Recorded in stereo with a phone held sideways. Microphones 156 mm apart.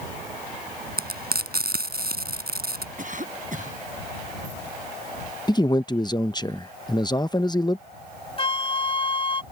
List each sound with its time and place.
1.0 s frying: 85° right
3.0 s a cough: 55° right (ahead or behind)
5.5 s a man speaking: 25° left (ahead or behind)
8.4 s a flute: 35° left (ahead or behind)